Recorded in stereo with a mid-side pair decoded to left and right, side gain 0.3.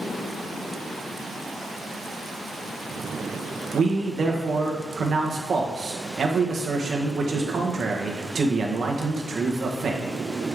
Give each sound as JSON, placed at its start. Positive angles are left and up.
{"t": 3.7, "sound": "a man speaking", "azimuth_deg": -55, "distance_m": 1.5}